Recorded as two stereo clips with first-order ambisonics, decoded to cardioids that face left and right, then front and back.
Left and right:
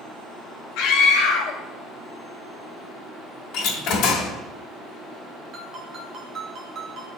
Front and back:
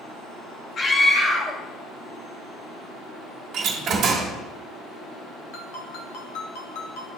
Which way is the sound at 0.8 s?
70° left.